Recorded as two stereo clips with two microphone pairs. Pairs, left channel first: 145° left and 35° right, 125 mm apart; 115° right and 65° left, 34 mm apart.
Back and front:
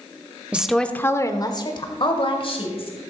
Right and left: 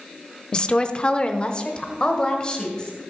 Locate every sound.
0.5 s a woman speaking: 100° right, 0.8 m; by 3.0 s 175° right, 2.5 m